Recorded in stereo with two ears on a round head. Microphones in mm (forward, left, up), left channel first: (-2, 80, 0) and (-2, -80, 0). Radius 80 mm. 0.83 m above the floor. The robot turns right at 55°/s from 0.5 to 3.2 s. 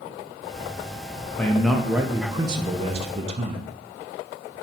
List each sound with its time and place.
1.4 s a man speaking: 165° left, 0.5 m; by 3.7 s 95° right, 0.5 m